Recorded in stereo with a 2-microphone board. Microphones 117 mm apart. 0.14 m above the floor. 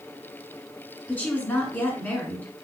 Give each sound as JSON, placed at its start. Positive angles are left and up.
{"t": 1.1, "sound": "a woman speaking", "side_deg": 15, "distance_m": 1.3}